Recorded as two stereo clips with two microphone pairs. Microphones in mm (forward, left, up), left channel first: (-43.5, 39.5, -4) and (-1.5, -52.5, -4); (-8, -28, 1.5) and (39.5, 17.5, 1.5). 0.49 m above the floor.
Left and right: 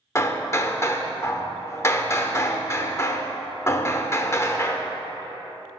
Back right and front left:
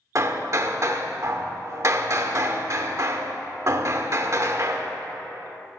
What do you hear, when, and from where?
0.1 s hammering: 60° left, 0.7 m